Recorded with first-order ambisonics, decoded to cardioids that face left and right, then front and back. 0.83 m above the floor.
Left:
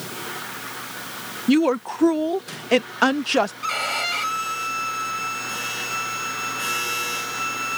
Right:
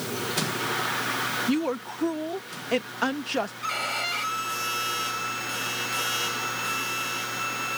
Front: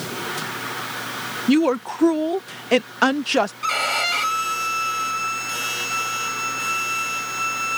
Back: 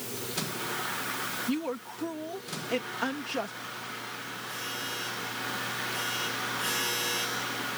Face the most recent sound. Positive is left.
turn(degrees=15)